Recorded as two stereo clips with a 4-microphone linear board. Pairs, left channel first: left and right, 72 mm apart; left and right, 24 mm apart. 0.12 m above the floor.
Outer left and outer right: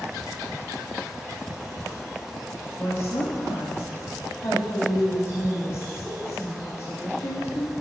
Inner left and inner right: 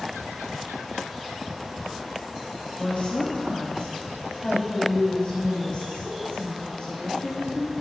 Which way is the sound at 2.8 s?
30° left (ahead or behind).